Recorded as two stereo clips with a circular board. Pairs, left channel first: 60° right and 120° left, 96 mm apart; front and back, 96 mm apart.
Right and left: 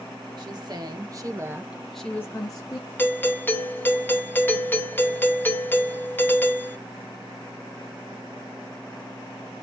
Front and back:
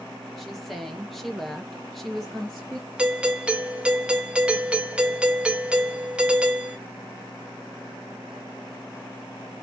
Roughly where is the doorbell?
Right.